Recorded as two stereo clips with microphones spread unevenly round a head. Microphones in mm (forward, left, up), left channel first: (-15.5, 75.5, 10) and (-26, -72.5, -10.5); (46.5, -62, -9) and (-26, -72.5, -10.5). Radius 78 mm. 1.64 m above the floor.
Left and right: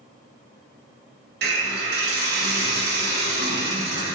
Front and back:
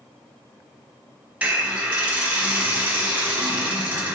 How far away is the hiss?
About 1.4 m.